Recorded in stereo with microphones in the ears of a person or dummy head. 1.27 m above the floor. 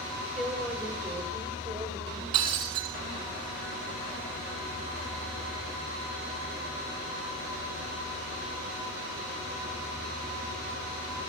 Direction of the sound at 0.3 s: 5° right (ahead or behind).